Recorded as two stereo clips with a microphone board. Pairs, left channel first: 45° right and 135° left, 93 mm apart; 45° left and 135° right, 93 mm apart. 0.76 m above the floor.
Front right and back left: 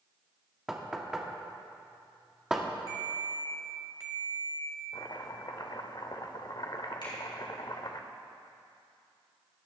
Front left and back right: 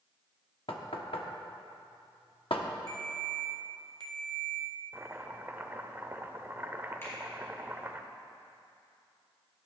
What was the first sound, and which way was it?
Knocking, 50° left.